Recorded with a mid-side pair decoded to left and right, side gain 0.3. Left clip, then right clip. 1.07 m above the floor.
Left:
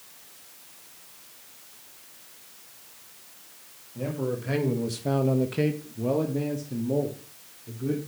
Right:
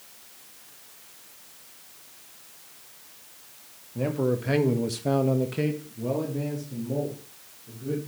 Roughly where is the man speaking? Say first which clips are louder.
Right 4 dB; ahead right.